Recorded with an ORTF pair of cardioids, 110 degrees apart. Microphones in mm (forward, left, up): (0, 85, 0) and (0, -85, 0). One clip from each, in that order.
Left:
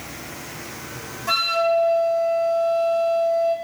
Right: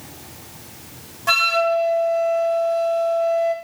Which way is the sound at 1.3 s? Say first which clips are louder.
Right 2 dB; 45° right.